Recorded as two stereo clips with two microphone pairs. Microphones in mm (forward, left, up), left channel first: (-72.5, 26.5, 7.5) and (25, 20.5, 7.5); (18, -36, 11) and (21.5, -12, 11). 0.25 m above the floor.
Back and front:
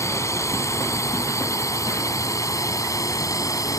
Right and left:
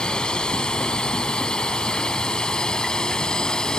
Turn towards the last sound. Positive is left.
turn(degrees=-140)